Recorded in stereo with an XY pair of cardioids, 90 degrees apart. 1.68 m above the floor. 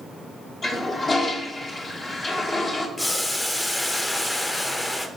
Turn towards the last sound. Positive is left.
turn(degrees=15)